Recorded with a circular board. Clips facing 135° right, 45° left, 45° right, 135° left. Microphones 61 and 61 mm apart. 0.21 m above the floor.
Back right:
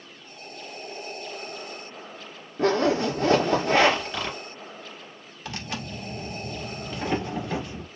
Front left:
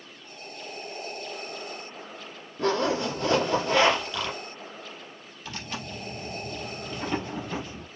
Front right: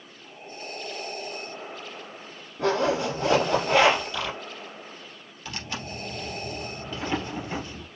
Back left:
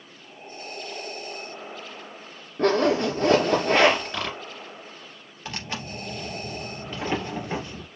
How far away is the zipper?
About 3.5 m.